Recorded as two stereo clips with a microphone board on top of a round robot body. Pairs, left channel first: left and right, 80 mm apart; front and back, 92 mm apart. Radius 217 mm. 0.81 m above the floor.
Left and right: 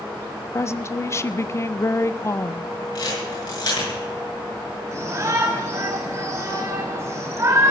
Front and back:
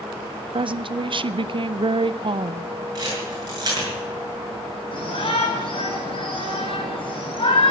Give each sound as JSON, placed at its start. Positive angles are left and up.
{"t": 0.5, "sound": "a woman speaking", "azimuth_deg": 150, "distance_m": 0.7}
{"t": 3.0, "sound": "a camera shutter", "azimuth_deg": 130, "distance_m": 7.0}
{"t": 4.9, "sound": "a shout", "azimuth_deg": -35, "distance_m": 7.0}